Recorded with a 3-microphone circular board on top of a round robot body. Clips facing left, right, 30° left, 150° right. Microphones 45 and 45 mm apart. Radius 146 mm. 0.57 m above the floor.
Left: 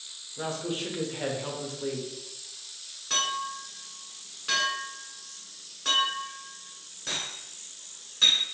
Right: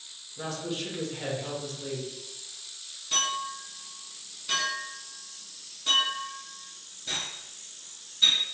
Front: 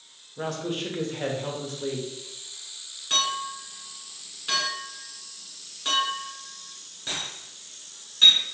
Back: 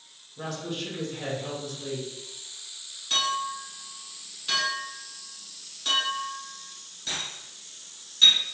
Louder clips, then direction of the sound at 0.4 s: Left 2 dB, front 4 dB; 35° left.